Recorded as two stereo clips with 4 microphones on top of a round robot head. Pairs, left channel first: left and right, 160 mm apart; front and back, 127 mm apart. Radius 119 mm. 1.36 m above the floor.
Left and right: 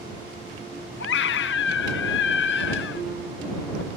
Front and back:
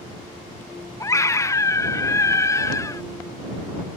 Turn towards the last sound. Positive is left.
turn(degrees=65)